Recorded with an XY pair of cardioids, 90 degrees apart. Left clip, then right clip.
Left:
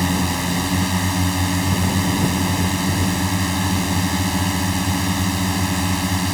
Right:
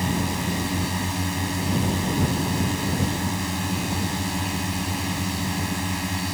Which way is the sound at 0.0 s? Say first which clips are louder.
Left 5 dB; 50° left.